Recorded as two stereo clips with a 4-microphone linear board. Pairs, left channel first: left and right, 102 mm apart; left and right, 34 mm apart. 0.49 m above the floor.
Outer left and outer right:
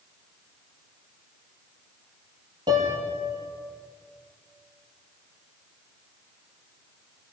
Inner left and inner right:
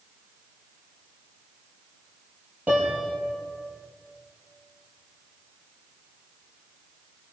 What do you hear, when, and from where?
2.7 s a piano: 40° right (ahead or behind), 6.5 m